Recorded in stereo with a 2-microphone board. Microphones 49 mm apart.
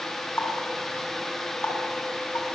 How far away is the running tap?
About 6 m.